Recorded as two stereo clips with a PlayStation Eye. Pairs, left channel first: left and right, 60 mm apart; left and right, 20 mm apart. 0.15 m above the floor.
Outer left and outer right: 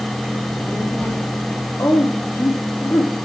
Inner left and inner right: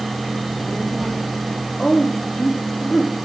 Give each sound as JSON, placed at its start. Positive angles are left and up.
{"t": 0.3, "sound": "a child speaking", "side_deg": 35, "distance_m": 3.0}
{"t": 1.8, "sound": "a woman speaking", "side_deg": 50, "distance_m": 4.5}